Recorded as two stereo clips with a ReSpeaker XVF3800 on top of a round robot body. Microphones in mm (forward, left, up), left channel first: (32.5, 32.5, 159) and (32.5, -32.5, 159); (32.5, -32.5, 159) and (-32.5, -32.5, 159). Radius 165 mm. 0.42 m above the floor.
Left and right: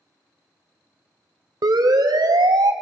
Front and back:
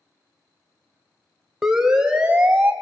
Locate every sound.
1.6 s a siren: 95° right, 3 m; by 2.7 s 115° right, 3.5 m